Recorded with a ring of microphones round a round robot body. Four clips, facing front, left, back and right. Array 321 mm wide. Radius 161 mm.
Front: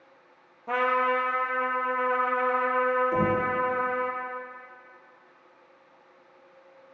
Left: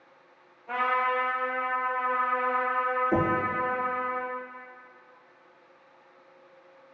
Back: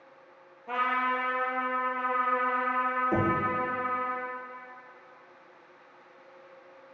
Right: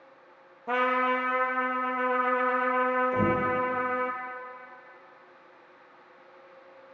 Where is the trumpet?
70° right, 2 m.